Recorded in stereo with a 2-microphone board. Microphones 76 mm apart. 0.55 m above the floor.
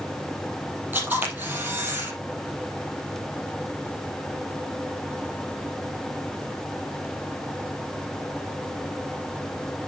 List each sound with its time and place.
0.9 s a camera shutter: 25° right (ahead or behind), 4.5 m